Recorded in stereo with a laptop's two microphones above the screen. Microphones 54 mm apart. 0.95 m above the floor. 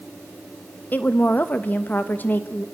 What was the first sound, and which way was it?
A woman speaking, 35° left (ahead or behind).